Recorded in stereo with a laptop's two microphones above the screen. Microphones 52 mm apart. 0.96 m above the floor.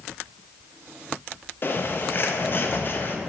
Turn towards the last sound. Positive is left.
turn(degrees=40)  # may be behind; listen again after turning